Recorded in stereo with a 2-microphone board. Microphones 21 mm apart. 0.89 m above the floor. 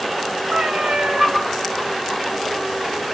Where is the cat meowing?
85° right, 1.5 m.